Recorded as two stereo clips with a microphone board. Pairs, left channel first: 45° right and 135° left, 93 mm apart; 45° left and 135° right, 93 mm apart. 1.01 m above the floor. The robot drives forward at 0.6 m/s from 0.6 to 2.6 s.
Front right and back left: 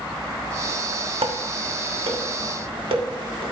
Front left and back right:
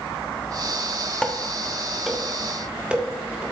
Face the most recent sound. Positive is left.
turn(degrees=145)